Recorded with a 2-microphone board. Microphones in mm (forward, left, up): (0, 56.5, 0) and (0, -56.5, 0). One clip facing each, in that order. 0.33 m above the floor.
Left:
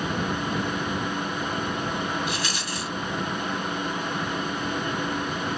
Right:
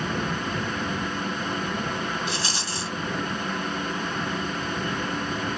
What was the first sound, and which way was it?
A rattle, 30° right (ahead or behind).